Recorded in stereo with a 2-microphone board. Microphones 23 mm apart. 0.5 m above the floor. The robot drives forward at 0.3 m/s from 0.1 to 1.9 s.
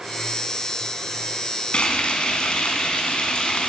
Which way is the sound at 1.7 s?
50° left (ahead or behind).